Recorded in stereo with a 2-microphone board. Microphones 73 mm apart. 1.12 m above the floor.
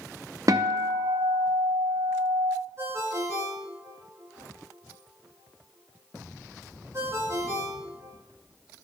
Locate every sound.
0.5 s a guitar: 55° right (ahead or behind), 0.7 m
2.8 s a ringtone: 40° right (ahead or behind), 3.5 m